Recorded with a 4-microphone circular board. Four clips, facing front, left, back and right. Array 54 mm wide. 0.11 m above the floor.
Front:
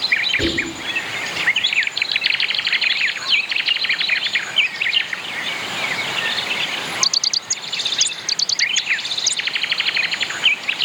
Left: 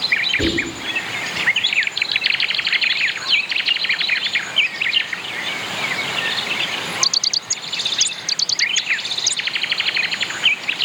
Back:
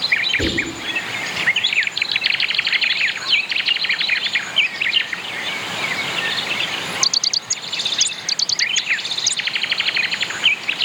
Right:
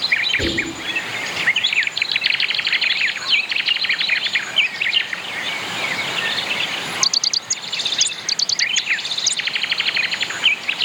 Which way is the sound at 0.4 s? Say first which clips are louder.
Left 1 dB, even; 15° right.